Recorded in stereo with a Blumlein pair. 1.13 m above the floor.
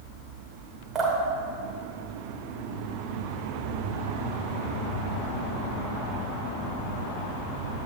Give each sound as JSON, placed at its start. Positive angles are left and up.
{"t": 0.9, "sound": "dripping", "azimuth_deg": -20, "distance_m": 1.5}